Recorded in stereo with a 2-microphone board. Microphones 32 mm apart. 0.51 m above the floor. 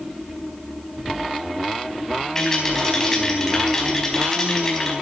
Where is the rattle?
20° left (ahead or behind), 4 m.